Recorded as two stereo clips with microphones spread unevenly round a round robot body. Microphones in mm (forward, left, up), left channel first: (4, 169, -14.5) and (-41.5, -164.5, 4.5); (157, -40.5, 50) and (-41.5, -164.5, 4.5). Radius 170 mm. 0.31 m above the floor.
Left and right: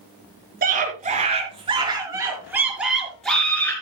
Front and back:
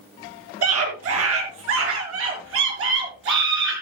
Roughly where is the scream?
Behind.